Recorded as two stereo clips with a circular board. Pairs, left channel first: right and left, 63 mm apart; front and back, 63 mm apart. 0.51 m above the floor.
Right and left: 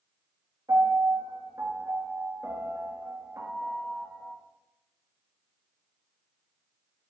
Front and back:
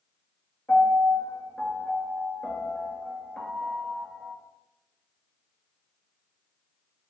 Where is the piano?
65° left, 1.8 m.